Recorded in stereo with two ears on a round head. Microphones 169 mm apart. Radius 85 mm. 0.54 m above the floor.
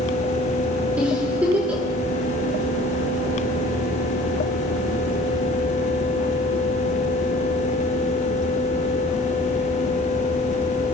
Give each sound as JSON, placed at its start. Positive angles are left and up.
{"t": 1.0, "sound": "a giggle", "side_deg": -5, "distance_m": 7.0}